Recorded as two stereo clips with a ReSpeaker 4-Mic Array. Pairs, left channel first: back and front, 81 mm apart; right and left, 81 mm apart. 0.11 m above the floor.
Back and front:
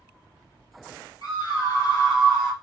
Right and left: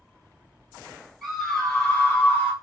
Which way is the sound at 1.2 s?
Straight behind.